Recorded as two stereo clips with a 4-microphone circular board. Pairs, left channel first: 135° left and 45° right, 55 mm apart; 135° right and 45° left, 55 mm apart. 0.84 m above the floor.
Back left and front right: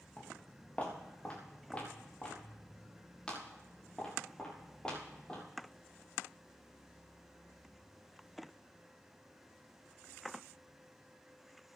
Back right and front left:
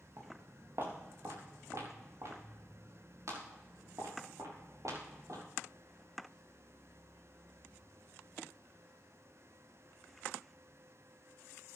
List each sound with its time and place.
0.2 s footsteps: 75° left, 3.5 m; by 5.4 s 60° left, 7.5 m